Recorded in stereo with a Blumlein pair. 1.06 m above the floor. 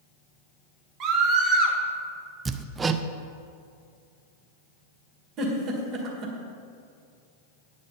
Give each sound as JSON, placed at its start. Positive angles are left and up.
{"t": 1.0, "sound": "a scream", "azimuth_deg": -35, "distance_m": 1.9}
{"t": 2.5, "sound": "hammering", "azimuth_deg": -15, "distance_m": 0.5}
{"t": 5.4, "sound": "a giggle", "azimuth_deg": -35, "distance_m": 2.0}